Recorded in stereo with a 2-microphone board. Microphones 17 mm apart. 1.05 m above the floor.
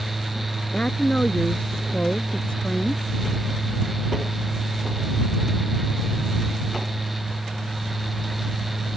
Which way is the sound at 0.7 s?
65° left (ahead or behind).